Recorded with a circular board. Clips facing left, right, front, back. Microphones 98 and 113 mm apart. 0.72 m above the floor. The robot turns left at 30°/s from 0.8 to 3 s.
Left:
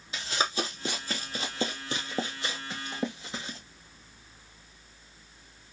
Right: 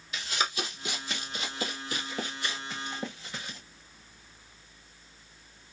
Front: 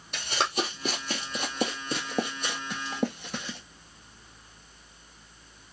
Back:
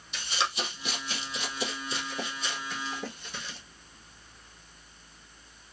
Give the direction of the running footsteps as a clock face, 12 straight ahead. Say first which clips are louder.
Left 2 dB, front 3 dB; 11 o'clock.